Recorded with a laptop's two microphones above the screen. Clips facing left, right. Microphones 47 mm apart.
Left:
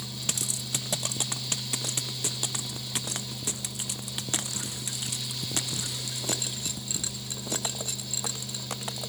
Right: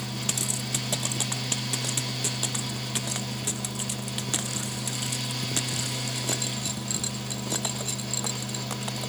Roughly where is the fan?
Right.